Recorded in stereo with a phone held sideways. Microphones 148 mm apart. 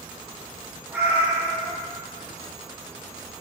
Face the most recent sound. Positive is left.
turn(degrees=-15)  # may be behind; listen again after turning